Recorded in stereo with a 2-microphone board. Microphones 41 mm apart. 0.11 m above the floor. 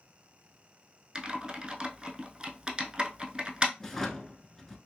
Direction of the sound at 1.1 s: 20° right (ahead or behind).